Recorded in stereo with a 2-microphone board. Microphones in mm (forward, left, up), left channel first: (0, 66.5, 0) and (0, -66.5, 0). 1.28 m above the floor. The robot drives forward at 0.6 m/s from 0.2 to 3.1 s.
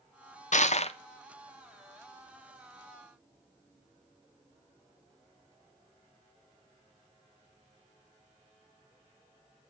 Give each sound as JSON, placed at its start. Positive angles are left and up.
{"t": 0.5, "sound": "crushing", "side_deg": 65, "distance_m": 0.6}